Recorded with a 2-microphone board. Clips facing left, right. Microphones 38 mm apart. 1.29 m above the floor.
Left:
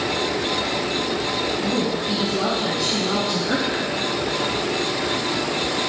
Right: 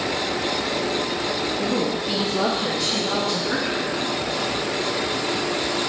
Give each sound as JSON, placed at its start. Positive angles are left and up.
{"t": 1.6, "sound": "a woman speaking", "side_deg": -55, "distance_m": 1.8}